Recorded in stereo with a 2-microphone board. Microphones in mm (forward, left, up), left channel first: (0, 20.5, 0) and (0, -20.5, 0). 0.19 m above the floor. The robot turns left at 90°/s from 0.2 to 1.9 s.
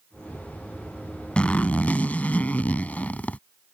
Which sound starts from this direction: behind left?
A zipper, at 1.4 s.